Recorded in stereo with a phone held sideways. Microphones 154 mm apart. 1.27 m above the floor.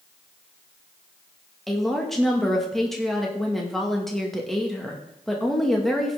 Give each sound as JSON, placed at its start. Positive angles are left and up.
{"t": 1.7, "sound": "a woman speaking", "side_deg": 0, "distance_m": 2.0}